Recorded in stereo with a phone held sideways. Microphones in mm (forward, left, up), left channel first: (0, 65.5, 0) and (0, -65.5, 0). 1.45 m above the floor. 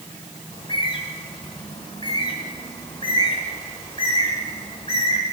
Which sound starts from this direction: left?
A bird, at 0.5 s.